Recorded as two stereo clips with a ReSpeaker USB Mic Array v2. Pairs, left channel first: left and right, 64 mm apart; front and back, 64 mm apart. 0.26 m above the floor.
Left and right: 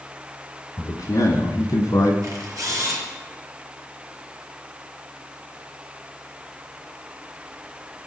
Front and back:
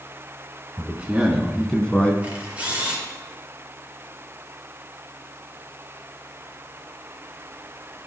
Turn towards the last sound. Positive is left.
turn(degrees=-110)